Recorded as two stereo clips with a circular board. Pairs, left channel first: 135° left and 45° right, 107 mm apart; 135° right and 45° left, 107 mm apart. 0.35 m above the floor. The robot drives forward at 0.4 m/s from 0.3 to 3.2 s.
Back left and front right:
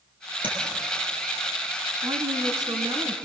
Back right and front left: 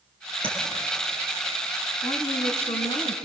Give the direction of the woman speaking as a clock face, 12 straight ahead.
3 o'clock.